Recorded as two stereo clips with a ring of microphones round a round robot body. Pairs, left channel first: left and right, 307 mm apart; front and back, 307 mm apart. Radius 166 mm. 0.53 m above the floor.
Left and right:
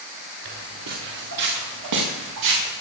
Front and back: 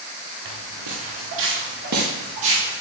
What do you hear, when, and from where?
0.5 s footsteps: 140° right, 3.5 m; by 2.7 s 105° right, 6 m